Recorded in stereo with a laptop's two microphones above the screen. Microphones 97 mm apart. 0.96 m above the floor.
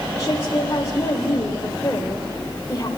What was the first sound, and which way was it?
A woman speaking, 30° left (ahead or behind).